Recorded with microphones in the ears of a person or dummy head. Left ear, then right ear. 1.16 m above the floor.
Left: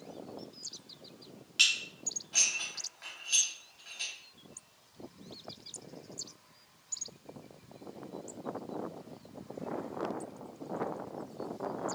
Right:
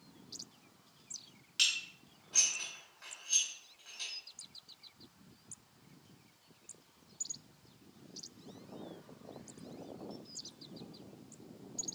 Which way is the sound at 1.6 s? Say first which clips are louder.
Left 5 dB; 10° left (ahead or behind).